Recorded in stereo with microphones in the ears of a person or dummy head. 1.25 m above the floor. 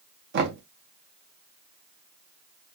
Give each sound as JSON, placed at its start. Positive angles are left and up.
{"t": 0.3, "sound": "knocking", "side_deg": -60, "distance_m": 0.7}